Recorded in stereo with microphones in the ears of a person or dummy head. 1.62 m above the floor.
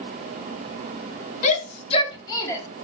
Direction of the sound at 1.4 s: 40° left (ahead or behind).